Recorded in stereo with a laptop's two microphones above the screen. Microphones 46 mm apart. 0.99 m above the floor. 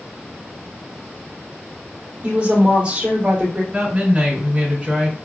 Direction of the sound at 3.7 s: 25° right (ahead or behind).